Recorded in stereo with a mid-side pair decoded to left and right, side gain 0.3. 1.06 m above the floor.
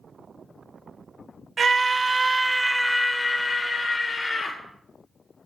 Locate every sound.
1.6 s a scream: 55° right, 0.8 m; by 4.6 s 60° left, 1.1 m